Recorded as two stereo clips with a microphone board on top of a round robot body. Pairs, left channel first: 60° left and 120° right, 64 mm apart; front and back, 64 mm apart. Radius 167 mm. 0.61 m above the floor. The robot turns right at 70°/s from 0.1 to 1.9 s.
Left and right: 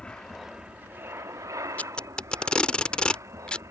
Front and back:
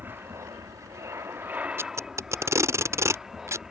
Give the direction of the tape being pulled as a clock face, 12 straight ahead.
8 o'clock.